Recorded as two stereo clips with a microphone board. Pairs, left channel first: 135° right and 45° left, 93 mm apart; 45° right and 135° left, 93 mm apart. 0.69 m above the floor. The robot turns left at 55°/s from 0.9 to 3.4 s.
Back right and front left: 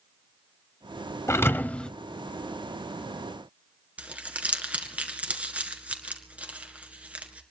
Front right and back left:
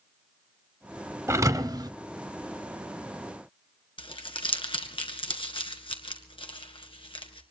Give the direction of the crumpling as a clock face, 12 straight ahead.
1 o'clock.